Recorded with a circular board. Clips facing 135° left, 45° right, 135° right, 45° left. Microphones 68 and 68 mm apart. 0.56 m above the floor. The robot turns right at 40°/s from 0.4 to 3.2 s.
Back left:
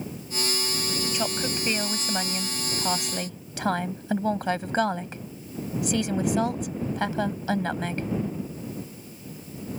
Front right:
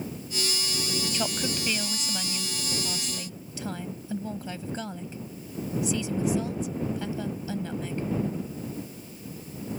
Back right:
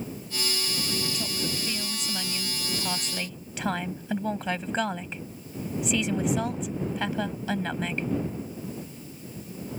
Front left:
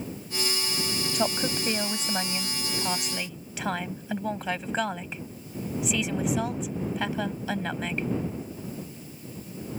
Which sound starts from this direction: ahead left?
A woman speaking, at 1.1 s.